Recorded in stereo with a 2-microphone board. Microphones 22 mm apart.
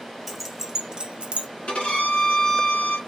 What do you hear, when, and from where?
0.3 s keys jangling: 5° left (ahead or behind), 0.8 m; by 1.5 s 65° right (ahead or behind), 0.6 m
1.7 s a violin: 60° left (ahead or behind), 1.5 m